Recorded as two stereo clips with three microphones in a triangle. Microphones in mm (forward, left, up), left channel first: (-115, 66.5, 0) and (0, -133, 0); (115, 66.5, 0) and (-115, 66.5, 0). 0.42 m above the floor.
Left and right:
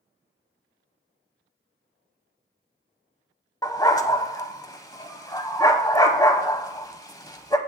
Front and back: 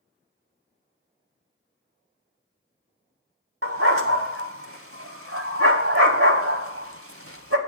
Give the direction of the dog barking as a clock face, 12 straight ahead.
6 o'clock.